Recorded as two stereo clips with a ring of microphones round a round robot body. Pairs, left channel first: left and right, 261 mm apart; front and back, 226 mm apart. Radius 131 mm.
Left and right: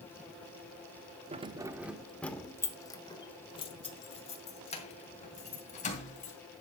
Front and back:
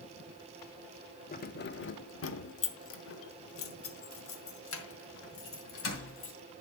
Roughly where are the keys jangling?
Ahead right.